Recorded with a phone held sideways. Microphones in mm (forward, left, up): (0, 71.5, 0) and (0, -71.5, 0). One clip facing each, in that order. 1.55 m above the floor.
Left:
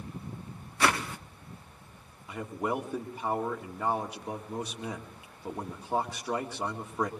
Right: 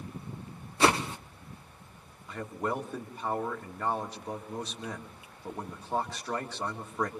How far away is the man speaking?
About 2 m.